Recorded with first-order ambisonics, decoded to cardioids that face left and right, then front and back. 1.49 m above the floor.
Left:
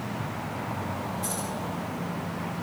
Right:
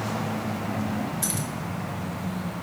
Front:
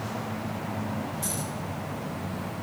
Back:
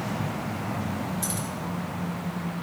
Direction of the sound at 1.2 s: 110° right.